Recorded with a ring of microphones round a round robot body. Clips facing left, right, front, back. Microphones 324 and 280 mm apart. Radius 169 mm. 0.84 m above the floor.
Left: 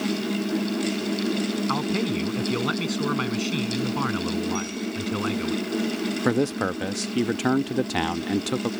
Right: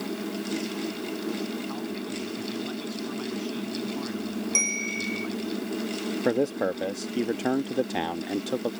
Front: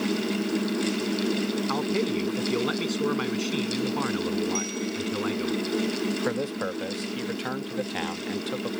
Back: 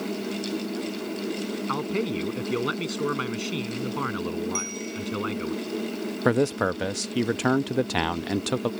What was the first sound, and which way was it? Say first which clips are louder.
A man speaking: left 7 dB, front 1 dB; 105° left.